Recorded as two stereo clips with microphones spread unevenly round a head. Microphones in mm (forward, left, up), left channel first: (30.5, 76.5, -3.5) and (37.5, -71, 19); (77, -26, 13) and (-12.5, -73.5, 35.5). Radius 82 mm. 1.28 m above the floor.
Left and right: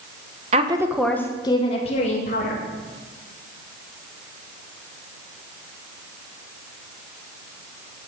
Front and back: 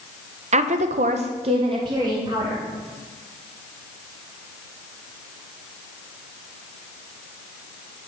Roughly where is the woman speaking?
Behind right.